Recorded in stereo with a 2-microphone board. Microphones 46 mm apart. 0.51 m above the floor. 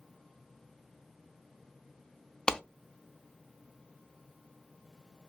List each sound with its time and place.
2.5 s a clap: 15° left (ahead or behind), 0.6 m